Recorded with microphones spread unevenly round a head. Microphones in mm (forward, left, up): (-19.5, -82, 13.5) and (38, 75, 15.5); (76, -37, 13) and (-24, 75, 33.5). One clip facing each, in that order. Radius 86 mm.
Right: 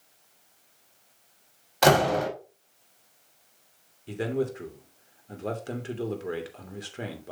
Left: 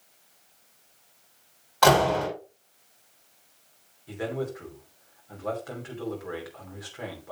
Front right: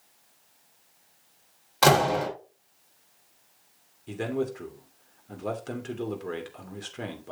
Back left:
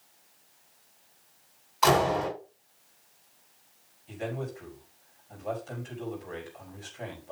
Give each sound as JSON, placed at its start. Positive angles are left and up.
{"t": 1.8, "sound": "a door slam", "azimuth_deg": -45, "distance_m": 5.0}
{"t": 4.1, "sound": "a man speaking", "azimuth_deg": -55, "distance_m": 3.0}